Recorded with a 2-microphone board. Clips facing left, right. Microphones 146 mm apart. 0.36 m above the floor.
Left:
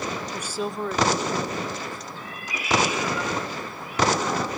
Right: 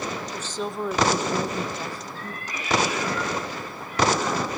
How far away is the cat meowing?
About 5 m.